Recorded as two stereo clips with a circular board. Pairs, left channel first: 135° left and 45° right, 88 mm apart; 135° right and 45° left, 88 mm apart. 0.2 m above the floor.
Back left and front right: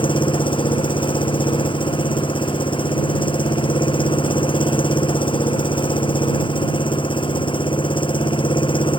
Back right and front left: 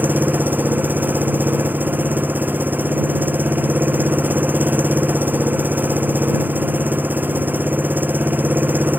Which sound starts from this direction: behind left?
An engine running, at 0.0 s.